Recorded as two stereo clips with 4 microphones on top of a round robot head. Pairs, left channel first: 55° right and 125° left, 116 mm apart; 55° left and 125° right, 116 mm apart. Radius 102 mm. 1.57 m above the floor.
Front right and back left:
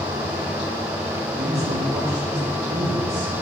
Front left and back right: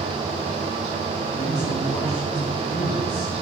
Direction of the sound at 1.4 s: 90° left.